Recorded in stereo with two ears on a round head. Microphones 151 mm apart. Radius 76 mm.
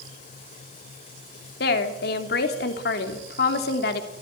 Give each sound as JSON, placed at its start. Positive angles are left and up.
{"t": 1.6, "sound": "a woman speaking", "side_deg": 65, "distance_m": 3.0}